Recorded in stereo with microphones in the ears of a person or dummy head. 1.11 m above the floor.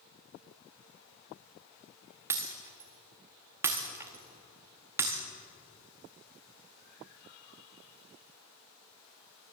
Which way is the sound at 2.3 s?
5° right (ahead or behind).